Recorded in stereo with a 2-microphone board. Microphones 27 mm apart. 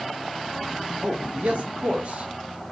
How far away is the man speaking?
About 1.6 m.